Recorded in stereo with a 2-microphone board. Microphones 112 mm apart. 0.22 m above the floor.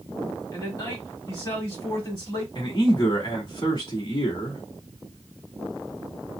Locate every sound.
0.5 s a man speaking: 35° left (ahead or behind), 1.4 m
2.5 s a man speaking: 45° left (ahead or behind), 1.6 m